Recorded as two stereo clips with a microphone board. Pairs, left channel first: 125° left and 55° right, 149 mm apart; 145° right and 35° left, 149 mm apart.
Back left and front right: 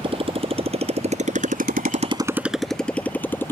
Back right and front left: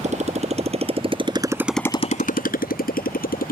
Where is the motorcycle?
5° right; by 3.5 s 160° right.